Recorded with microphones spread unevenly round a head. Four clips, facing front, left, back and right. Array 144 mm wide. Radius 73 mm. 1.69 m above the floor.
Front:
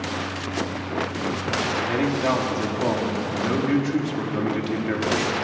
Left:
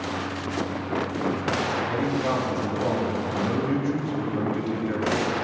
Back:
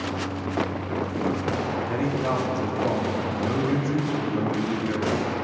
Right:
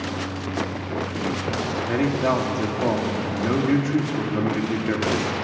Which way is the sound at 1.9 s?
65° right.